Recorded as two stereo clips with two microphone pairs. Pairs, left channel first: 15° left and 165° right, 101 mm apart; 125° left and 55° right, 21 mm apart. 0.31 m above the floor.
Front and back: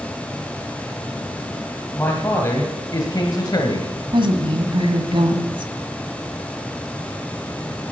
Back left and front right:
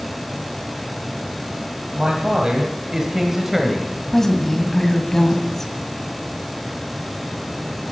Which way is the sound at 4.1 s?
165° right.